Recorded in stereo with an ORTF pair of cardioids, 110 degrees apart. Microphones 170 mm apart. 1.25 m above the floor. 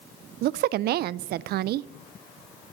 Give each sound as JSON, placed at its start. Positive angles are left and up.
{"t": 0.4, "sound": "a woman speaking", "azimuth_deg": -60, "distance_m": 0.5}